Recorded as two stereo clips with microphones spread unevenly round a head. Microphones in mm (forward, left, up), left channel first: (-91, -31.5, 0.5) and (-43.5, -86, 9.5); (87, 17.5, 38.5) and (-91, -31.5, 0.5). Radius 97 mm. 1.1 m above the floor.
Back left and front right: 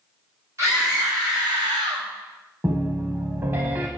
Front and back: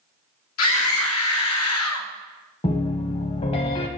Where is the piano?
10° right, 1.2 m.